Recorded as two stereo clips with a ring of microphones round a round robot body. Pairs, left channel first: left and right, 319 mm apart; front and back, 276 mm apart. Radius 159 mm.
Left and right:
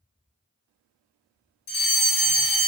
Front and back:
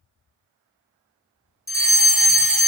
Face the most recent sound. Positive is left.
turn(degrees=65)